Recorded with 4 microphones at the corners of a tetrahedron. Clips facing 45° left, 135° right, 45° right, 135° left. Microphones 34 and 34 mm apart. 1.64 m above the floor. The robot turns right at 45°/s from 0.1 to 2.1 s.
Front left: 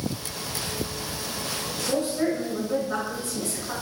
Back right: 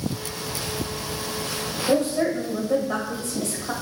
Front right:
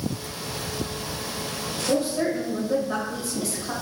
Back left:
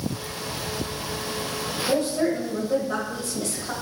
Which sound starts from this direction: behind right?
A woman speaking, at 1.9 s.